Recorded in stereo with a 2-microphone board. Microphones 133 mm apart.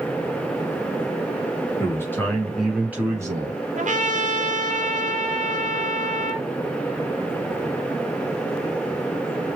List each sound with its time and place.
1.8 s a man speaking: 20° left (ahead or behind), 2 m; by 3.6 s 35° right (ahead or behind), 2.0 m
3.8 s a trumpet: 65° right (ahead or behind), 0.7 m